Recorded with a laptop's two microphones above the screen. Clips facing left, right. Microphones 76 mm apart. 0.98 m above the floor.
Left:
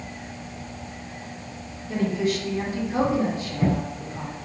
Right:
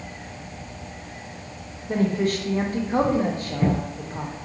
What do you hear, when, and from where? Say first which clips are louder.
1.9 s a woman speaking: right 2 dB; 50° right (ahead or behind), 0.7 m